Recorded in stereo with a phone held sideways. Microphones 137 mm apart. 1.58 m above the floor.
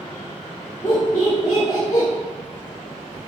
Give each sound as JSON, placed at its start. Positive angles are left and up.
{"t": 0.8, "sound": "laughter", "side_deg": 25, "distance_m": 1.5}